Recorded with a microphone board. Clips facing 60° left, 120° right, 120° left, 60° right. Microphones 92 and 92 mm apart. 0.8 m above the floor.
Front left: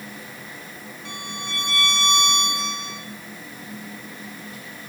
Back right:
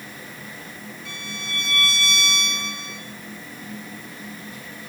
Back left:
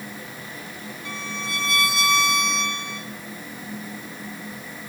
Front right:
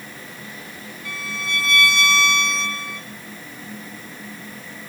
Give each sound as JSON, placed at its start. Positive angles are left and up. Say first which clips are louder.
{"t": 1.1, "sound": "a violin", "louder": "front left 3 dB, front right 2 dB", "azimuth_deg": 55, "distance_m": 2.5}